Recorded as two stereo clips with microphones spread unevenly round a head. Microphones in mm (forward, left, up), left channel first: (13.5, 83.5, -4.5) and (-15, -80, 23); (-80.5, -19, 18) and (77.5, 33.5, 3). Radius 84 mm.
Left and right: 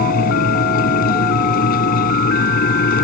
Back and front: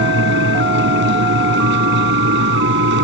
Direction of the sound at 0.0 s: 40° left.